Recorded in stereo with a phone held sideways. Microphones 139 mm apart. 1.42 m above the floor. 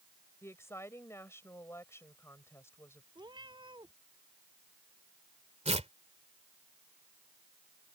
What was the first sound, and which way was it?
A woman speaking, 20° left (ahead or behind).